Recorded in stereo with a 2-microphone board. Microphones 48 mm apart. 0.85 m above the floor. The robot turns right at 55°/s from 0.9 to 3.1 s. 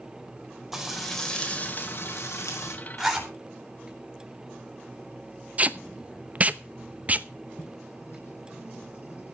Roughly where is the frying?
Ahead.